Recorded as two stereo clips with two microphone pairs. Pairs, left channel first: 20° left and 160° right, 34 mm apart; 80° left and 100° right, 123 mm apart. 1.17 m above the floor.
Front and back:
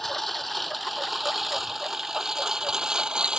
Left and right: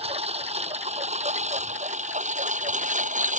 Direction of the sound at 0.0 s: 65° right.